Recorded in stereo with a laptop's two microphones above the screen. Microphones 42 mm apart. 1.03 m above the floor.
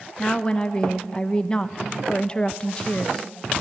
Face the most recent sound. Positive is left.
turn(degrees=20)  # may be behind; listen again after turning